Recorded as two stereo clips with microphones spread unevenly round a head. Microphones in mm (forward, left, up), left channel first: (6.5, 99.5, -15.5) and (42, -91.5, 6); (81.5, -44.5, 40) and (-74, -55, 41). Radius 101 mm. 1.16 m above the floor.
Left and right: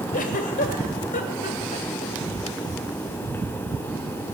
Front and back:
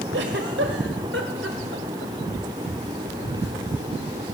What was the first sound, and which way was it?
A giggle, 150° left.